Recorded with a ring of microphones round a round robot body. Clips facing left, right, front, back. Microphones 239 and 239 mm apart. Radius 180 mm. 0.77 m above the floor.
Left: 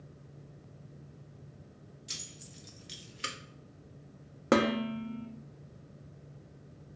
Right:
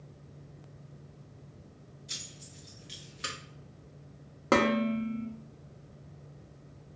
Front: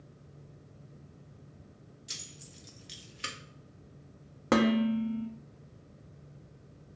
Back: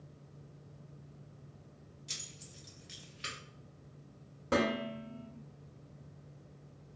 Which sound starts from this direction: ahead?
Dishes clattering, at 4.5 s.